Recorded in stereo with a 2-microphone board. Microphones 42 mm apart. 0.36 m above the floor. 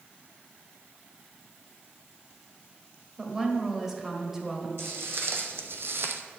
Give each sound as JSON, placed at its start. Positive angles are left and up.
{"t": 3.2, "sound": "a woman speaking", "side_deg": -10, "distance_m": 1.5}
{"t": 4.8, "sound": "footsteps", "side_deg": -70, "distance_m": 1.4}